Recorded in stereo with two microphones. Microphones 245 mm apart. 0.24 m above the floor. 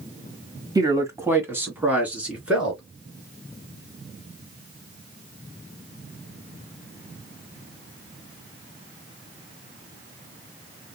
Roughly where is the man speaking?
Centre.